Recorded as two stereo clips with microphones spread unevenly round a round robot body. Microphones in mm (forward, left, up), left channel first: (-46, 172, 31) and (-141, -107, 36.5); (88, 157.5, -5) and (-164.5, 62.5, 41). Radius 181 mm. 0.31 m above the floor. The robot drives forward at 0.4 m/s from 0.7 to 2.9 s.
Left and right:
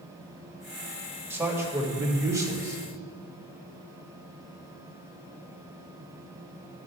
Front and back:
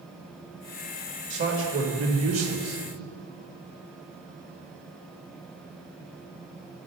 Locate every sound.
1.3 s a man speaking: 170° left, 1.5 m; by 2.8 s 175° left, 2.0 m